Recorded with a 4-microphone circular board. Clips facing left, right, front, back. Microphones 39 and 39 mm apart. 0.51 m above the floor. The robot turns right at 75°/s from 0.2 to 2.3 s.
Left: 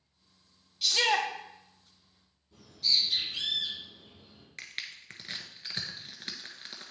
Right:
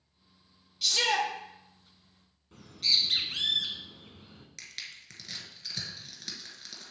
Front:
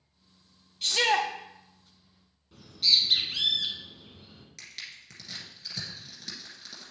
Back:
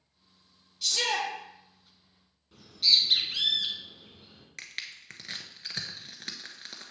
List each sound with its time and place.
0.8 s a shout: 5° left, 1.1 m; by 1.3 s 40° left, 1.1 m
2.5 s a bird: 90° right, 1.1 m
4.6 s crushing: 145° left, 1.1 m